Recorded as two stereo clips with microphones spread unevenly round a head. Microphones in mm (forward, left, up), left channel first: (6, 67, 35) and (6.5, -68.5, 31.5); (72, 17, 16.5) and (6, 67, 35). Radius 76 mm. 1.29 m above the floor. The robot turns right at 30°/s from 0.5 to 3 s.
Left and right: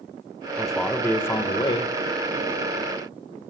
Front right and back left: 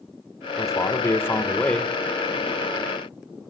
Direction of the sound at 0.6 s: Straight ahead.